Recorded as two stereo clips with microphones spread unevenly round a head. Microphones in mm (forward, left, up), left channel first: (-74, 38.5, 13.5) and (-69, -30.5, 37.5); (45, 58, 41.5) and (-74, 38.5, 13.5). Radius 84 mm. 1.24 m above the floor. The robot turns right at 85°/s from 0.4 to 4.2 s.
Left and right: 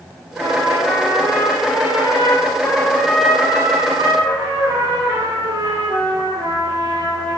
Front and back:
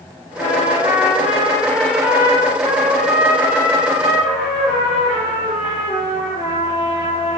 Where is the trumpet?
45° right, 3 m; by 7.4 s 80° right, 3 m.